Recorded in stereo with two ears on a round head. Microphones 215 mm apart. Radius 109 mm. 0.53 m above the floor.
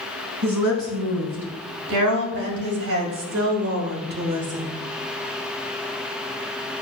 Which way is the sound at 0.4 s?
75° right (ahead or behind).